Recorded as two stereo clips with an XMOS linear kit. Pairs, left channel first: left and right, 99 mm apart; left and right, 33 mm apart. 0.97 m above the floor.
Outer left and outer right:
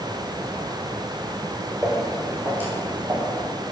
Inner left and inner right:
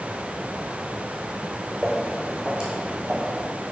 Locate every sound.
1.8 s footsteps: 5° right (ahead or behind), 2.5 m; by 3.4 s 35° right (ahead or behind), 1.9 m